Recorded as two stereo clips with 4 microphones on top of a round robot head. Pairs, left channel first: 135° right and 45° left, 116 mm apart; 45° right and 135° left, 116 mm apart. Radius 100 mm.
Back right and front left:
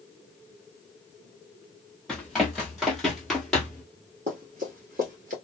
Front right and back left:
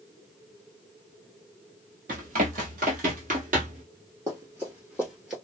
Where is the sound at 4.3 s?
70° left, 1.7 m; by 5.3 s 50° left, 1.6 m.